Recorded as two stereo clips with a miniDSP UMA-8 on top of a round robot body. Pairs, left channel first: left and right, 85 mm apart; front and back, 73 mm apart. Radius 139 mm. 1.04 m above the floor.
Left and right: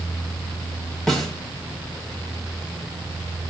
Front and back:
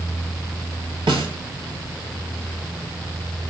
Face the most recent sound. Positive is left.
turn(degrees=175)